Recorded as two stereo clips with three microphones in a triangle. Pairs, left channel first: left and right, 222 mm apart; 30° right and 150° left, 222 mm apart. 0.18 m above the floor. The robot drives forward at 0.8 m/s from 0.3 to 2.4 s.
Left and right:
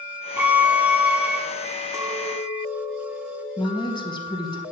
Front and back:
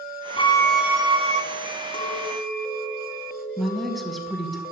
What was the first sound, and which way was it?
A violin, 15° right.